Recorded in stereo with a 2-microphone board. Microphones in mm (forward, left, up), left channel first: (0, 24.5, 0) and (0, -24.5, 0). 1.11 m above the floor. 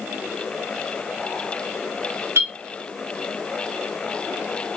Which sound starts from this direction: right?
A clink, at 2.4 s.